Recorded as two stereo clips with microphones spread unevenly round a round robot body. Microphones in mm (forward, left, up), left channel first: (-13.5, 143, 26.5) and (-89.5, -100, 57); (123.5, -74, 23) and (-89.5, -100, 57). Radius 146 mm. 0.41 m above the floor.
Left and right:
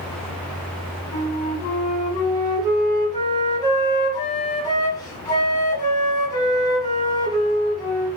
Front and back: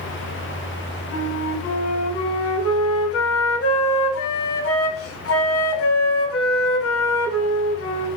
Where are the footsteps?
No footsteps in this recording.